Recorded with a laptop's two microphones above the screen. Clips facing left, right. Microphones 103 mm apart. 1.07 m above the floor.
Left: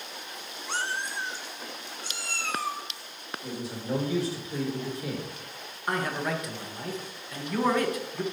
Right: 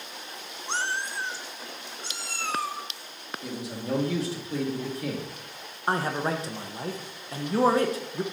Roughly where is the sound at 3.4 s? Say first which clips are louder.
Right 1 dB; right.